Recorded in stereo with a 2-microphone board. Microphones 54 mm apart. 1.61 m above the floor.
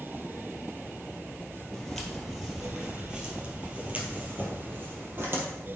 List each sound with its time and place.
1.7 s footsteps: 5° left (ahead or behind), 2.5 m; by 5.5 s 45° right (ahead or behind), 3 m